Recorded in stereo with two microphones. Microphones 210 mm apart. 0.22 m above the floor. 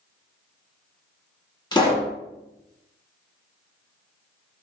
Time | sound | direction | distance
1.7 | a pop | 20° left (ahead or behind) | 1.1 m